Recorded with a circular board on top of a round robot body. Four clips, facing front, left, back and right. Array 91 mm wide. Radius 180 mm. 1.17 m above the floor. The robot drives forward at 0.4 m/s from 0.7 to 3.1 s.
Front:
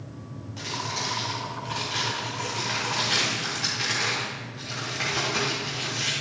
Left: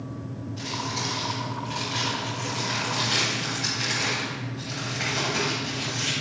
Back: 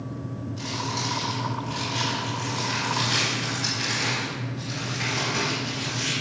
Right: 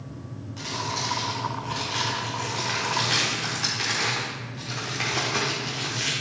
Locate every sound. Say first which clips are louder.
0.6 s crumpling: right 2 dB, even; 35° right, 1.6 m; by 6.1 s 75° right, 1.1 m